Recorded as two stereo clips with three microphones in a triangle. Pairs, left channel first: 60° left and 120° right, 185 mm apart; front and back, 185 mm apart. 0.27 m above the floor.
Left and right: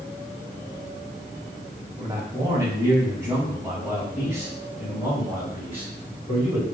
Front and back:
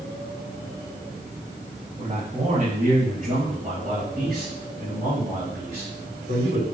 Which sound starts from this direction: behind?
A man speaking, at 2.0 s.